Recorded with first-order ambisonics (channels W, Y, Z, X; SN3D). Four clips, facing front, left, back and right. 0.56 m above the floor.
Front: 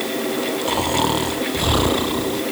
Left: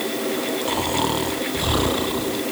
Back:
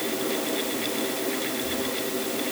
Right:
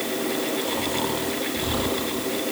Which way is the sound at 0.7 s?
20° left.